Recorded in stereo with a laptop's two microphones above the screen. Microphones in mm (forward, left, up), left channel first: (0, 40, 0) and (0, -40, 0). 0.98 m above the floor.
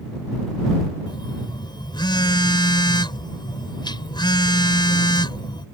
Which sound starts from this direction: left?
A phone buzzing, at 1.1 s.